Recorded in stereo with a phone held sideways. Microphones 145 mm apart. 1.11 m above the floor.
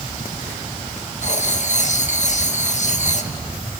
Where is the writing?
55° left (ahead or behind), 1.2 m.